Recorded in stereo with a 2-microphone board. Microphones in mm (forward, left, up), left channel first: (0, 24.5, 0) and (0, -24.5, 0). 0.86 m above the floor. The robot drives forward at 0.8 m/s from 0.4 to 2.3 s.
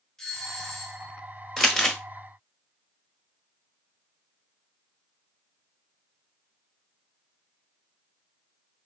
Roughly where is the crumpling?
Centre.